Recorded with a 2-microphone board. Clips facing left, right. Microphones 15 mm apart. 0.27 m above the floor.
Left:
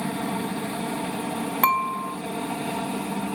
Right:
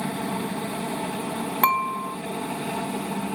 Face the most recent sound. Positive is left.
turn(degrees=-5)  # may be behind; listen again after turning